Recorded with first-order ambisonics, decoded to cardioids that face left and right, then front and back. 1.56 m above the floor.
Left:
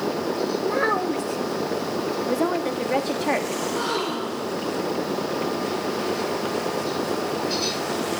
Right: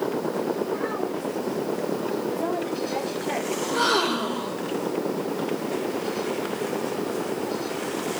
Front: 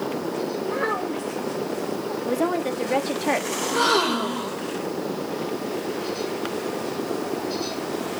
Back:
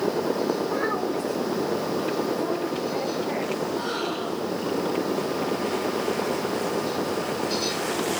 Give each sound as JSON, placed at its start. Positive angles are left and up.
{"t": 0.6, "sound": "a child speaking", "azimuth_deg": 80, "distance_m": 1.5}
{"t": 2.2, "sound": "a woman speaking", "azimuth_deg": 40, "distance_m": 2.5}
{"t": 3.6, "sound": "a gasp", "azimuth_deg": -20, "distance_m": 4.5}